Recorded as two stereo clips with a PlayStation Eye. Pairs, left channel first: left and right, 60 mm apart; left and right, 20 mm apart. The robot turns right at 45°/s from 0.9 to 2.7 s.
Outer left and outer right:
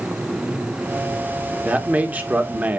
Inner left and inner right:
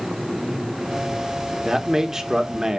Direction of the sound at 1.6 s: 25° right (ahead or behind).